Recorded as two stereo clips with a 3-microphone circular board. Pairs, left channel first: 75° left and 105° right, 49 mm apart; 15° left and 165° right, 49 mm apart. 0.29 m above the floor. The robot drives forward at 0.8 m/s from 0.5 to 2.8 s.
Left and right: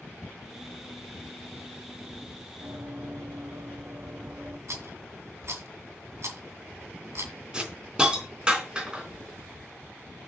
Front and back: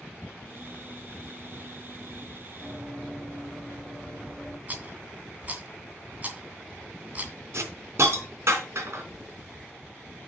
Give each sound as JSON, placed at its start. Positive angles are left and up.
{"t": 2.6, "sound": "running footsteps", "azimuth_deg": -90, "distance_m": 3.0}
{"t": 4.7, "sound": "a rattle", "azimuth_deg": -110, "distance_m": 2.5}
{"t": 7.5, "sound": "a hiss", "azimuth_deg": -175, "distance_m": 3.5}